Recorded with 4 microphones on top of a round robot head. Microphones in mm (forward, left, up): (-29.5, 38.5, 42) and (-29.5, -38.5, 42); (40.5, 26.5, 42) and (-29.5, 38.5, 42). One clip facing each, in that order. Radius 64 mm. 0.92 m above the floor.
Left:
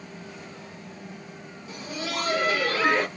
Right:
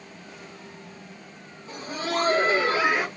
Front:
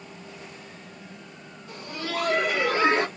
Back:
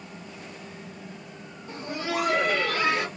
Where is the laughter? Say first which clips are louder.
Right 4 dB, back 2 dB; 130° right, 1.4 m; by 3.1 s 15° right, 1.0 m.